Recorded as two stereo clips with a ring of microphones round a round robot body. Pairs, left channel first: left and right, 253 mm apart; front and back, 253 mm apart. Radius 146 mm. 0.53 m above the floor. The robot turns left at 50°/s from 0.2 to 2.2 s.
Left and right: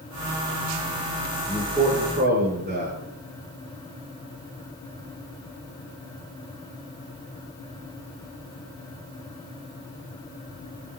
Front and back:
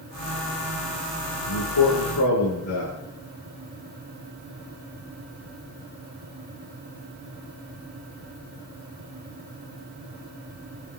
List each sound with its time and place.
1.5 s a man speaking: 5° left, 9.5 m; by 2.9 s 30° right, 9.5 m